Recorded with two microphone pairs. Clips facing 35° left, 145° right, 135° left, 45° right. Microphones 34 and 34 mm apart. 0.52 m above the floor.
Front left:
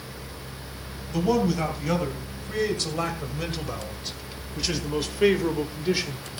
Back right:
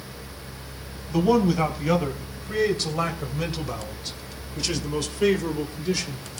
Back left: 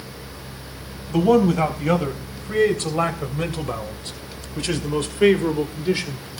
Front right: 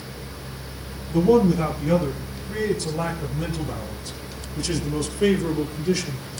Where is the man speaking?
130° left, 3.5 m; by 6.4 s 90° left, 1.9 m.